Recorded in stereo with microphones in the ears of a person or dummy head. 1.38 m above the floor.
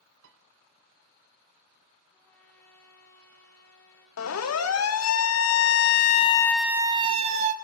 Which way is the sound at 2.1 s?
10° left (ahead or behind).